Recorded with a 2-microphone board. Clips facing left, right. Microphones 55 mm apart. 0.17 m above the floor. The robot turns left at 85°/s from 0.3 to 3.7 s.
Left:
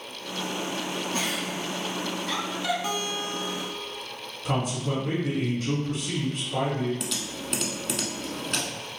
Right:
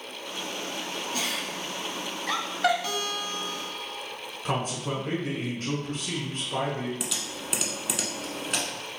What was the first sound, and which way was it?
A giggle, 30° left (ahead or behind).